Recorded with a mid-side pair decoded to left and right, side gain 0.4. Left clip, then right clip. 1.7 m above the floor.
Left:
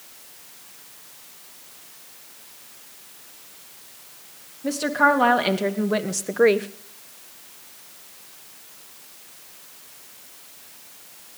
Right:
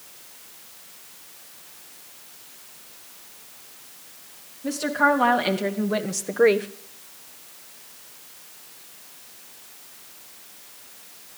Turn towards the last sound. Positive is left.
turn(degrees=0)